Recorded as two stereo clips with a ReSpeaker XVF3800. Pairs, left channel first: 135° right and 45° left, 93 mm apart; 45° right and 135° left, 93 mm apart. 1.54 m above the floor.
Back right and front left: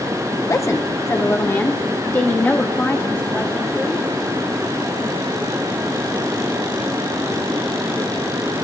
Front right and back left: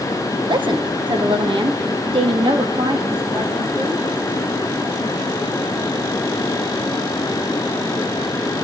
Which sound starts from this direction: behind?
A woman speaking, at 0.5 s.